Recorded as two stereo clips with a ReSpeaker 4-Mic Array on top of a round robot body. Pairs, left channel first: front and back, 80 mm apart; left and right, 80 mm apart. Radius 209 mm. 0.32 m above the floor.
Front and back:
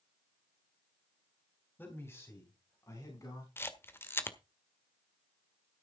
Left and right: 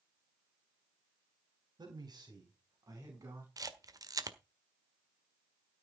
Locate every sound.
1.8 s a man speaking: 65° right, 4 m; by 3.5 s 45° right, 6 m
3.6 s a camera shutter: 60° right, 1.8 m